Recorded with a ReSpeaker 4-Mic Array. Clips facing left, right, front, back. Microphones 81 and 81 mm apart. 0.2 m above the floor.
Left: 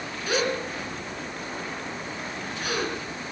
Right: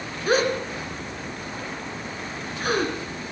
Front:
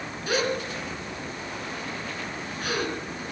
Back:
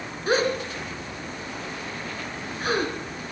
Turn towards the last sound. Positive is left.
turn(degrees=-130)